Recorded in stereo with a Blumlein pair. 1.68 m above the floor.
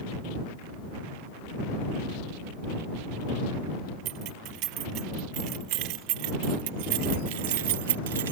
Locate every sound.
4.0 s keys jangling: 40° right; by 8.3 s 60° right